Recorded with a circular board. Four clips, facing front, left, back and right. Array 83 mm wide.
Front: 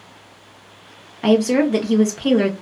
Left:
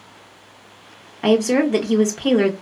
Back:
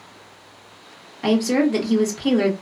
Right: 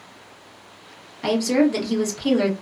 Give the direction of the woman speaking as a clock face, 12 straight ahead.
10 o'clock.